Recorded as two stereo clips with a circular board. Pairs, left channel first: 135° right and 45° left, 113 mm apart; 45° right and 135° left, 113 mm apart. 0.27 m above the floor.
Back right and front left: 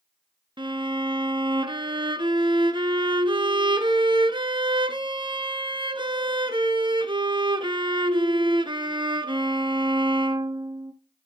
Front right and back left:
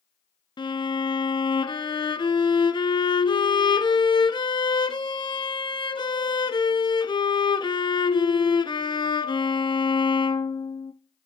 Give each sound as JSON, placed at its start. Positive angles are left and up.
{"t": 0.6, "sound": "a violin", "azimuth_deg": 0, "distance_m": 0.5}